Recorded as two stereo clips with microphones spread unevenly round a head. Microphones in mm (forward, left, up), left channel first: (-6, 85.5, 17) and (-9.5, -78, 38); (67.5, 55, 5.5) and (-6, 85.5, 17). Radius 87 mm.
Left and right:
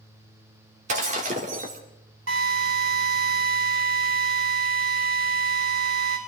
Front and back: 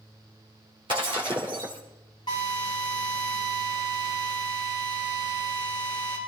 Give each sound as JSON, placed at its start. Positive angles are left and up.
{"t": 0.9, "sound": "breaking glass", "azimuth_deg": -140, "distance_m": 2.0}
{"t": 2.3, "sound": "a drill", "azimuth_deg": -80, "distance_m": 5.0}